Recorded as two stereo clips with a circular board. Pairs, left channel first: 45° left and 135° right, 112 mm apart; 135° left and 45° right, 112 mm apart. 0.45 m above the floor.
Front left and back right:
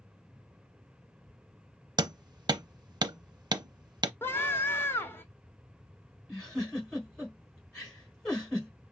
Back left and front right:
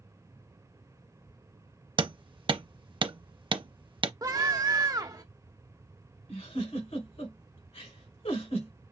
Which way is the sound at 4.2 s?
15° right.